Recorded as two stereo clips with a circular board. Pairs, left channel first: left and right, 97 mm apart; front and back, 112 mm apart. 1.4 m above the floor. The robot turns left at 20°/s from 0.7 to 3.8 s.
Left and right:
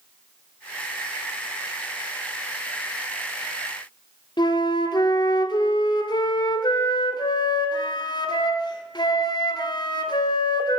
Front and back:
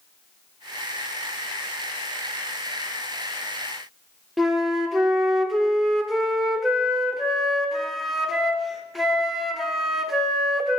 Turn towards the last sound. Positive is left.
turn(degrees=90)